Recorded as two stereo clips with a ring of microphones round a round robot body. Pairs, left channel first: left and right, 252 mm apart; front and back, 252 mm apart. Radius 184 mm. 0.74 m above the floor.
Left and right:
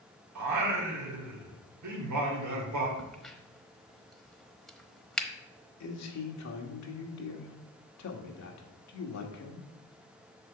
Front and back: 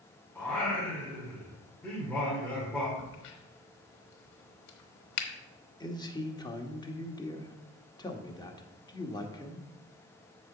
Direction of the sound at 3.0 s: Straight ahead.